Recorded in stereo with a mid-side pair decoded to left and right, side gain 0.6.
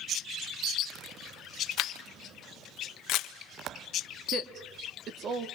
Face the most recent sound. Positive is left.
turn(degrees=-50)